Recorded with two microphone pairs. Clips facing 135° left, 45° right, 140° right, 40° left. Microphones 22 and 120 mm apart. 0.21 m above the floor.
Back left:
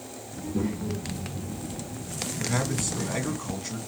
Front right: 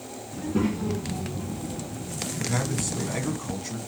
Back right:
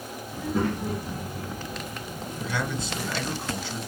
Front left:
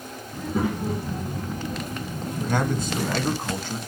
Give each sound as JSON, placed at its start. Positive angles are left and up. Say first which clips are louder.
{"t": 0.3, "sound": "a child speaking", "louder": "front right 4 dB, front left 1 dB", "azimuth_deg": -50, "distance_m": 1.2}
{"t": 2.4, "sound": "a man speaking", "louder": "even, front left 6 dB", "azimuth_deg": 45, "distance_m": 2.5}